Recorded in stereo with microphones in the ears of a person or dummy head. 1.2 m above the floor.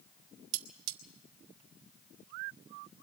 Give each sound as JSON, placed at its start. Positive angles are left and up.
{"t": 0.5, "sound": "cutlery clinking", "side_deg": -60, "distance_m": 1.2}